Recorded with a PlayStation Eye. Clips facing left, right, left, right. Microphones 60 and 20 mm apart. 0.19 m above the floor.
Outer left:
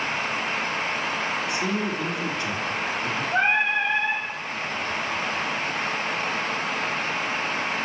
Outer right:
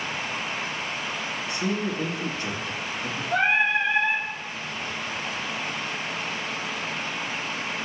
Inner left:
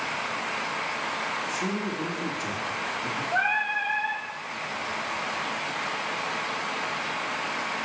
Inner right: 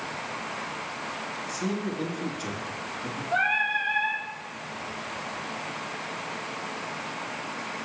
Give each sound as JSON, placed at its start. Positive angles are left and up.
{"t": 1.5, "sound": "a man speaking", "side_deg": -35, "distance_m": 2.5}
{"t": 3.3, "sound": "singing", "side_deg": -80, "distance_m": 3.5}